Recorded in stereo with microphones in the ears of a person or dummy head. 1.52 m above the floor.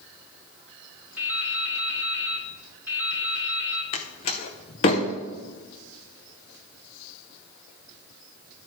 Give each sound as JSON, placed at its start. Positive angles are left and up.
{"t": 1.2, "sound": "dripping", "side_deg": -10, "distance_m": 0.9}
{"t": 3.9, "sound": "a door slam", "side_deg": 30, "distance_m": 0.7}